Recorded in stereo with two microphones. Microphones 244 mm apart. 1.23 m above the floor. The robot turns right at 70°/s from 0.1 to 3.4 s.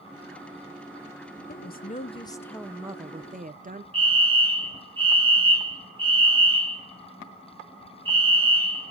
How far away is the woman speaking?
About 0.6 m.